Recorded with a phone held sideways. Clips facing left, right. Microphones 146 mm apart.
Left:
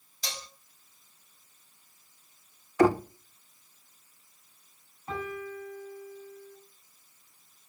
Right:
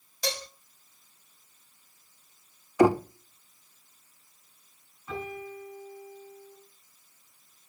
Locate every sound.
0.2 s dishes clattering: 70° right (ahead or behind), 2 m
2.8 s knocking: 15° right (ahead or behind), 0.9 m
5.1 s a piano: 45° left (ahead or behind), 9 m